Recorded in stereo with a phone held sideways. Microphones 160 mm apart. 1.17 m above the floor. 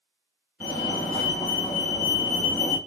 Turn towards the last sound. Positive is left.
turn(degrees=15)  # may be behind; listen again after turning